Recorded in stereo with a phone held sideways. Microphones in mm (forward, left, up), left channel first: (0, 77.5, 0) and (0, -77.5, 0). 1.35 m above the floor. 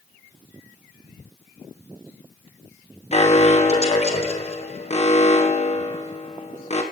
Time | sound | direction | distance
3.1 | an alarm | 45° left (ahead or behind) | 1.6 m